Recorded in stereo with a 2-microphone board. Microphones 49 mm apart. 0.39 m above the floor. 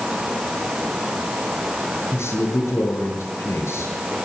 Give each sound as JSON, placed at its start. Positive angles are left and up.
{"t": 2.1, "sound": "a man speaking", "side_deg": 65, "distance_m": 6.5}